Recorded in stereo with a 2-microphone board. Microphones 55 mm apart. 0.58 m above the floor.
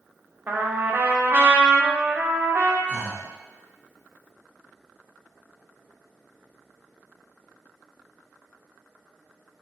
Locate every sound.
0.5 s a trumpet: 35° right (ahead or behind), 0.6 m
2.9 s breathing: 40° left (ahead or behind), 1.0 m